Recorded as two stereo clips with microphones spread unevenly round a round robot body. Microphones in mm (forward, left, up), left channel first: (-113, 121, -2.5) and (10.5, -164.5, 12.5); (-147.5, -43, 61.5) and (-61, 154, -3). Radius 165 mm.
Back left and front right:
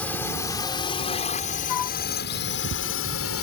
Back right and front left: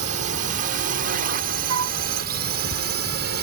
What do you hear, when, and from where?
0.0 s a drone: 30° left; by 3.4 s 70° left
1.7 s a flute: 70° left